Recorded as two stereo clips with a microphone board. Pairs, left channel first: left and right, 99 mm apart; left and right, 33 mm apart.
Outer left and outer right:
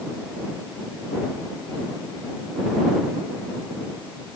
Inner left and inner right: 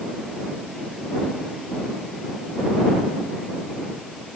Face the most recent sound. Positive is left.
No sound to turn to.